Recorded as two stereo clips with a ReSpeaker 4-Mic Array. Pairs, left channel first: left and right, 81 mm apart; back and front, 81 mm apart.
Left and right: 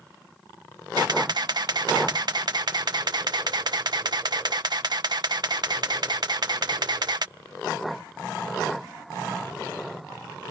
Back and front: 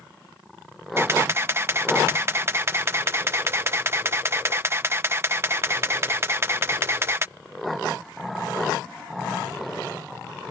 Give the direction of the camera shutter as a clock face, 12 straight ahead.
2 o'clock.